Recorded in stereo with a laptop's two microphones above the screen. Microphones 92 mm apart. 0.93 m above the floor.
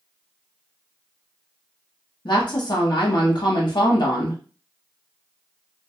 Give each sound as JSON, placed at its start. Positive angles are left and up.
{"t": 2.2, "sound": "a woman speaking", "side_deg": 55, "distance_m": 0.9}